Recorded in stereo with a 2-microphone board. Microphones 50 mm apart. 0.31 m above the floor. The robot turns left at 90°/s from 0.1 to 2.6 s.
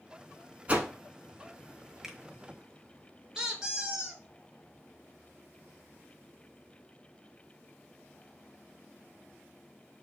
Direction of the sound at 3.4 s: 15° right (ahead or behind).